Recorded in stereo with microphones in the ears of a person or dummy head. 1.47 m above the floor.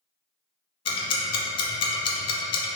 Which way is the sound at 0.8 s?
30° left (ahead or behind).